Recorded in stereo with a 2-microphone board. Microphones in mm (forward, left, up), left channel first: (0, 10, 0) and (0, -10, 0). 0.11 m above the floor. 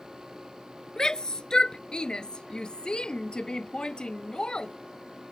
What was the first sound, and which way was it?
A shout, 40° left (ahead or behind).